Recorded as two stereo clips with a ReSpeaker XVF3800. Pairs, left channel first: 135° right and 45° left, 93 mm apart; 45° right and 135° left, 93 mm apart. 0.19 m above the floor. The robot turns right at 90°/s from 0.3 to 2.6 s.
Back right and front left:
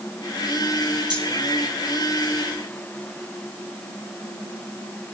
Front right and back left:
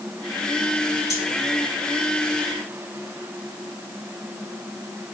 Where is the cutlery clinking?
10° left, 3 m; by 1.3 s 25° left, 3 m.